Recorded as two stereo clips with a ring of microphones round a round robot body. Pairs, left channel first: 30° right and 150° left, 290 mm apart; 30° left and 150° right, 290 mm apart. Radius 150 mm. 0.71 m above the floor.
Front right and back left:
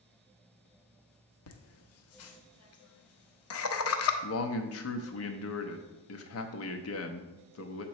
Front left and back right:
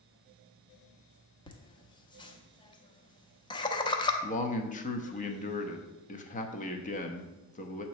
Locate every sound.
1.5 s laughter: 40° right, 0.8 m
4.2 s a man speaking: 25° right, 0.8 m